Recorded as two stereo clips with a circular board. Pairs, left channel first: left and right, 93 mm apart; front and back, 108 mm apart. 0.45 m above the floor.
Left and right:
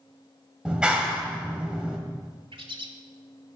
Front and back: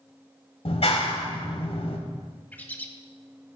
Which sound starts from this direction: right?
A bird, at 2.5 s.